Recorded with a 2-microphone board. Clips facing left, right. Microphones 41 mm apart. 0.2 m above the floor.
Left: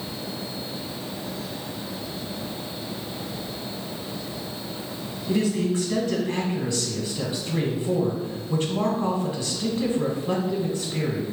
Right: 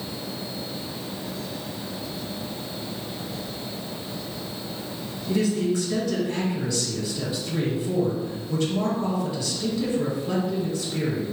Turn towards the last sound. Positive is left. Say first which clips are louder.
# even
turn(degrees=35)  # may be behind; listen again after turning